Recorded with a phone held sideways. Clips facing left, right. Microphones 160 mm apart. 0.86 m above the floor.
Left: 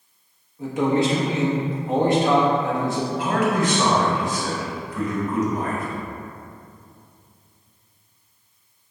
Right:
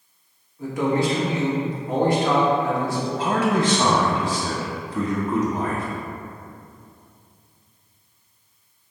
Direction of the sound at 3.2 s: 35° right (ahead or behind).